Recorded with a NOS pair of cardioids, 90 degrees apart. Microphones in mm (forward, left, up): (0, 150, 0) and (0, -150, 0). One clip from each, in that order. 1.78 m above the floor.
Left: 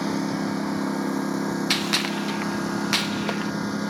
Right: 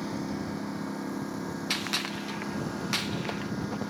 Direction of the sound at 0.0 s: 65° left.